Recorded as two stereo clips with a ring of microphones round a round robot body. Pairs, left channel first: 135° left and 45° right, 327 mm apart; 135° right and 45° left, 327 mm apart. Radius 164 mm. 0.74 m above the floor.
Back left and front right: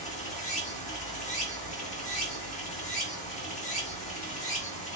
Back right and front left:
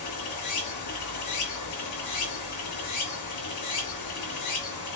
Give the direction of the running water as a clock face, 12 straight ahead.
5 o'clock.